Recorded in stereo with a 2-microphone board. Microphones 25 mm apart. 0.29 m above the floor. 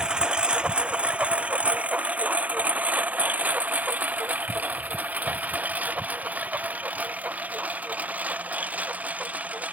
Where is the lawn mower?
30° right (ahead or behind); by 9.8 s 70° right (ahead or behind).